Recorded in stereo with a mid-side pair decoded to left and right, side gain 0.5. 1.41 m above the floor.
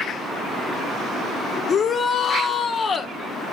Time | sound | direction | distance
1.7 | a shout | 50° left | 1.6 m